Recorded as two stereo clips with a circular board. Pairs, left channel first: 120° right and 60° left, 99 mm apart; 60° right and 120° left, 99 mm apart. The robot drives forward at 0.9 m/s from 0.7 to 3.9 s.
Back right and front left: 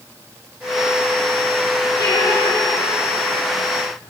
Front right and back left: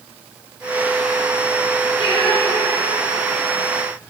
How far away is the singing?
About 3 m.